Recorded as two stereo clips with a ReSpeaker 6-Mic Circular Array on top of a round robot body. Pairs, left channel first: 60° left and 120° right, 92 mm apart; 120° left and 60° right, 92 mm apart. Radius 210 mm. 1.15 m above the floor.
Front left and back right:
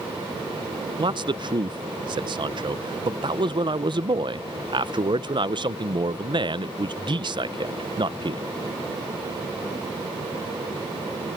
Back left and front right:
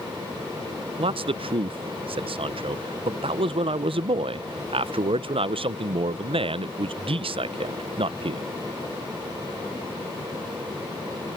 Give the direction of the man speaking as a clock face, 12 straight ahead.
3 o'clock.